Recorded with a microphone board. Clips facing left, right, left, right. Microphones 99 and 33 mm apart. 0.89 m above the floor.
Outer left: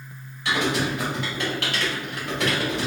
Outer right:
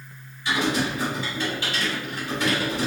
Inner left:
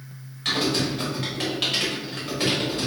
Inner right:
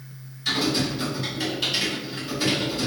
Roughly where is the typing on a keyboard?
Left.